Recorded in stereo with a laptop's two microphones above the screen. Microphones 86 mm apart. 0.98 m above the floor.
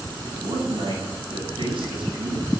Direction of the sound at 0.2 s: 80° right.